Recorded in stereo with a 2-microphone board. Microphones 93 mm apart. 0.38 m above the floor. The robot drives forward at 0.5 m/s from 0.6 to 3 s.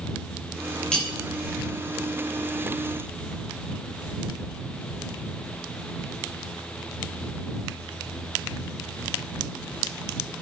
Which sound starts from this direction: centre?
Cutlery clinking, at 0.9 s.